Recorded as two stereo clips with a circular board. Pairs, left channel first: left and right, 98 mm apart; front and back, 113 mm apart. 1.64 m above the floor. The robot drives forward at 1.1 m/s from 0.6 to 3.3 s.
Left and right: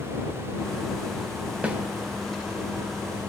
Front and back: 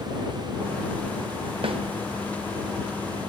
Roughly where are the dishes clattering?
I don't hear dishes clattering.